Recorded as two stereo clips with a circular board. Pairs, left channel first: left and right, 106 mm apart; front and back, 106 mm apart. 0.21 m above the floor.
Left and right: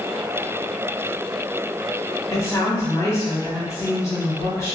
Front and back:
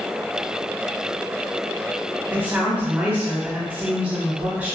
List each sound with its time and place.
2.3 s a woman speaking: 120° left, 1.2 m